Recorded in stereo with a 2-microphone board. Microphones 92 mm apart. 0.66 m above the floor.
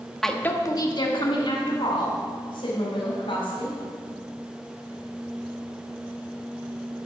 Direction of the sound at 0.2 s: Centre (ahead or behind).